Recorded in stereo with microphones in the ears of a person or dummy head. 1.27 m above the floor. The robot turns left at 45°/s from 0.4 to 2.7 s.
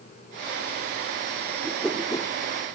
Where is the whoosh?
5° right (ahead or behind), 0.9 m; by 2.3 s 20° left (ahead or behind), 0.9 m.